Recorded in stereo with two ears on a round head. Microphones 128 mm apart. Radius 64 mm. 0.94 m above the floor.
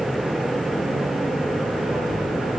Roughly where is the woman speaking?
No woman speaking in this recording.